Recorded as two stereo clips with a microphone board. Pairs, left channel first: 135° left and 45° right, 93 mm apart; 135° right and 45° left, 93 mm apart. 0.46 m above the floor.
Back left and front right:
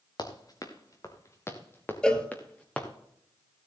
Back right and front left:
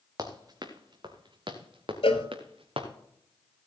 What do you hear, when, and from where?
0.2 s running footsteps: 95° left, 2.5 m; by 2.9 s 55° left, 3 m
2.0 s a cowbell: 145° right, 1.3 m